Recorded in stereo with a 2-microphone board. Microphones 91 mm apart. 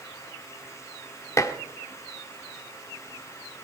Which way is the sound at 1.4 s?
35° left (ahead or behind).